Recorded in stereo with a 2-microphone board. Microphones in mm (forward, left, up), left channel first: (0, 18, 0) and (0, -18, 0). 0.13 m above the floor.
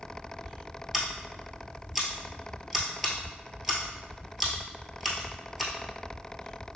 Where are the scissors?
10° right (ahead or behind), 1.1 m.